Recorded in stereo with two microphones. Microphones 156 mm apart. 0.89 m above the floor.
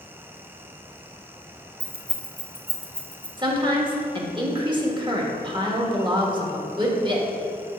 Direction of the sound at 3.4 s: 30° right (ahead or behind).